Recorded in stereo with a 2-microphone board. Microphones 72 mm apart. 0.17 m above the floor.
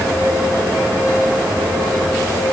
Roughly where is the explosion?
No explosion in this recording.